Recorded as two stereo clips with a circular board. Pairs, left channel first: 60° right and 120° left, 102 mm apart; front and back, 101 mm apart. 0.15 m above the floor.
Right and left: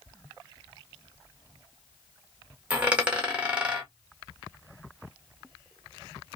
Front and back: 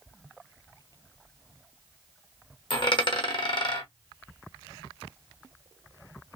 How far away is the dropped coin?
About 1.0 m.